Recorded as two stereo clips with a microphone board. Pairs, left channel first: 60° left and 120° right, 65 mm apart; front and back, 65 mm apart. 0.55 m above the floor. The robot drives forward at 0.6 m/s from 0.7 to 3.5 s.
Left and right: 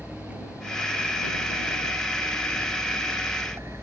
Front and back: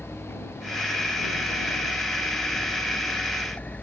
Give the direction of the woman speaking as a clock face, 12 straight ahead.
No woman speaking in this recording.